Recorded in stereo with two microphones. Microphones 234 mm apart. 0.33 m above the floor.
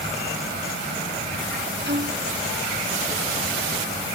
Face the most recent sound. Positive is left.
turn(degrees=-50)  # may be behind; listen again after turning